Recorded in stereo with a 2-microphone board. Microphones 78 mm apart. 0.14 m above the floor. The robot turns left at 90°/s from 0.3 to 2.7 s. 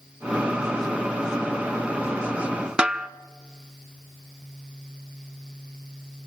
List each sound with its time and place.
2.8 s a snare drum: 10° right (ahead or behind), 0.5 m